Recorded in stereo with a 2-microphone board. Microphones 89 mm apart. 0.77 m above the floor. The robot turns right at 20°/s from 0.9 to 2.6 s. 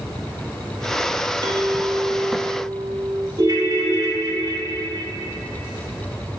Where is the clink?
55° right (ahead or behind), 0.9 m; by 3.3 s 30° right (ahead or behind), 0.9 m.